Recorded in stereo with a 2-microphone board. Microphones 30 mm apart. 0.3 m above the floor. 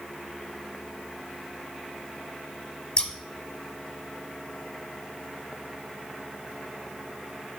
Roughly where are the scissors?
Left.